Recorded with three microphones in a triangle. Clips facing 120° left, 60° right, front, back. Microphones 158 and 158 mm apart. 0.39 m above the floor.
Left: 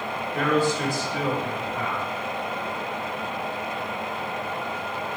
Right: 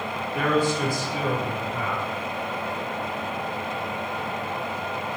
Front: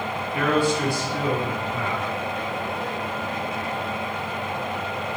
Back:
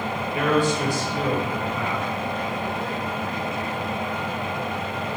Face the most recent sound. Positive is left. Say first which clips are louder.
# even, even
turn(degrees=-125)